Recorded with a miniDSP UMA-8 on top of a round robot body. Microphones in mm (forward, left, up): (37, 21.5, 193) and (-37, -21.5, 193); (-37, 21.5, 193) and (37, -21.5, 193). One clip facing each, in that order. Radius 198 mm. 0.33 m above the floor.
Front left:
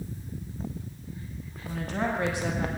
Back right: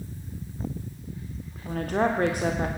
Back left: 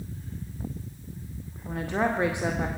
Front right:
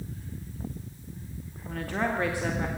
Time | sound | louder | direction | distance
1.6 | a woman speaking | back right 5 dB, back left 3 dB | 145° right | 1.5 m